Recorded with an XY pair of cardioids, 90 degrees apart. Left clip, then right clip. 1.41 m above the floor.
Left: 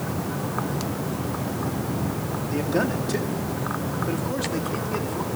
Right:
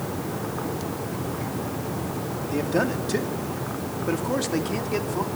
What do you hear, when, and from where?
2.5 s a man speaking: 10° right, 3 m; by 5.3 s 50° right, 3.5 m